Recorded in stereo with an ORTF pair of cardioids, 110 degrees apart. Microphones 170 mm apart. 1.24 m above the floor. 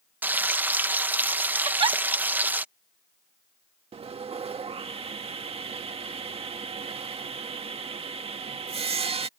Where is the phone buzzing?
No phone buzzing in this recording.